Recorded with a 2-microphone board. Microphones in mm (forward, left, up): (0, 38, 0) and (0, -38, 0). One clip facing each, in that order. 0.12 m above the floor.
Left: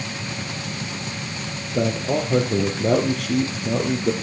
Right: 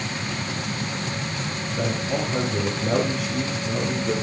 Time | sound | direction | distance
1.7 | a man speaking | 60° left (ahead or behind) | 3.5 m